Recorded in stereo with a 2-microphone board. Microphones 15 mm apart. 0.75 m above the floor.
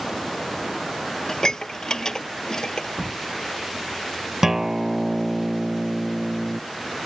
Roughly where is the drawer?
Right.